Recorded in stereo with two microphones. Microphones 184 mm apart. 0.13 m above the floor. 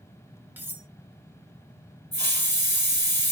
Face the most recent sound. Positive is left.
turn(degrees=-65)  # may be behind; listen again after turning